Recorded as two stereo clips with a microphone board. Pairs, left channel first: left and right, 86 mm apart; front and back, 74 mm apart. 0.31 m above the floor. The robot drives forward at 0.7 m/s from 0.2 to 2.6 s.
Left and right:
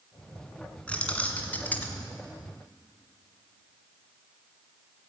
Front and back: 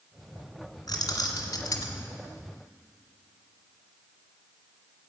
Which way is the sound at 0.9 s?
15° left.